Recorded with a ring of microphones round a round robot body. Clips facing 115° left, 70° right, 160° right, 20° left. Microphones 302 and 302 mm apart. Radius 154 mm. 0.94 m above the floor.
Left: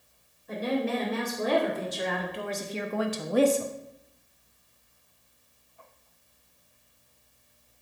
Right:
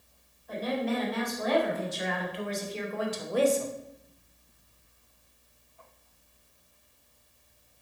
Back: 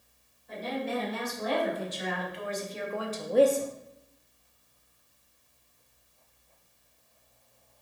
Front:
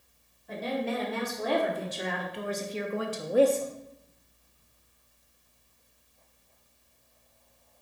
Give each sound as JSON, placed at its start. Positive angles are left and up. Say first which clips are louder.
{"t": 0.5, "sound": "a woman speaking", "louder": "left 2 dB, front 2 dB", "azimuth_deg": 50, "distance_m": 4.0}